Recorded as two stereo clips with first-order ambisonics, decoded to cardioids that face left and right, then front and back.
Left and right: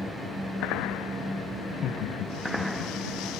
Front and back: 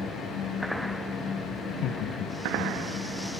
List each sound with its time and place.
1.7 s laughter: 30° left, 1.3 m; by 3.2 s 85° left, 2 m